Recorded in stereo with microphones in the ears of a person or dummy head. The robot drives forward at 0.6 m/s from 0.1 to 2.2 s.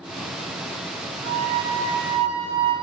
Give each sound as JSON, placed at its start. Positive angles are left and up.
{"t": 1.2, "sound": "a flute", "side_deg": -70, "distance_m": 4.0}